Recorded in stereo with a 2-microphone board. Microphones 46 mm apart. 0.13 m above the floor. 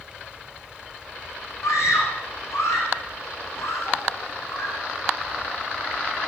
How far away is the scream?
About 7.5 m.